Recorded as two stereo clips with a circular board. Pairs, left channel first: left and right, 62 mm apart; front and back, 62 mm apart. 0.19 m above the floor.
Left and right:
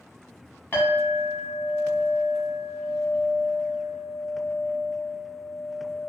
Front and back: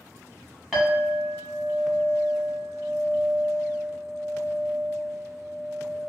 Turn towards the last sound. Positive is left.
turn(degrees=95)